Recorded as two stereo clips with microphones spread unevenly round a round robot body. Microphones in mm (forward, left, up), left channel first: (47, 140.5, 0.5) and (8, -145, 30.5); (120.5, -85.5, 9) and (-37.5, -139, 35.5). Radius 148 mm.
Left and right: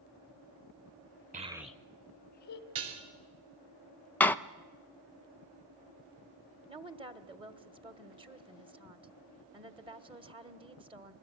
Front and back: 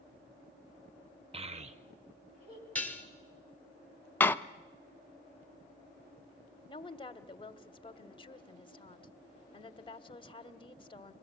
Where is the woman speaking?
25° right, 1.5 m.